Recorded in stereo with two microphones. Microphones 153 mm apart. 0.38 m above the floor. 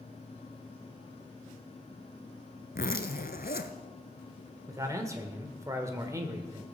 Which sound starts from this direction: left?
A zipper, at 2.8 s.